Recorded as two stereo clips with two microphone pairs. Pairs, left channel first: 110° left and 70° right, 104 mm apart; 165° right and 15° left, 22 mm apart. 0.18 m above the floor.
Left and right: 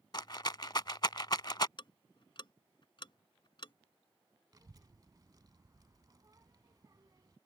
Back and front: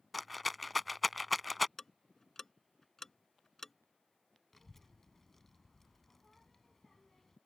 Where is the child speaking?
95° right.